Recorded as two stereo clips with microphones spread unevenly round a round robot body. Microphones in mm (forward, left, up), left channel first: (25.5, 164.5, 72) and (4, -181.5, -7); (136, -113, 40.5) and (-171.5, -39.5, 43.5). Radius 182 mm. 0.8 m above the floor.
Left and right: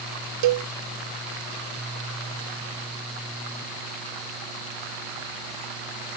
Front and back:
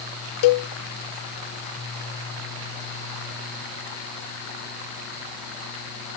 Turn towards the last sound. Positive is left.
turn(degrees=-50)